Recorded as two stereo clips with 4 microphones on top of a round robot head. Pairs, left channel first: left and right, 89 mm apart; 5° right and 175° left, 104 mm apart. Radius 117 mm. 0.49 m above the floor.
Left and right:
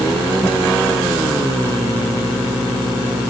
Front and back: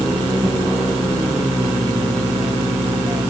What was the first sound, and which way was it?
Only background noise.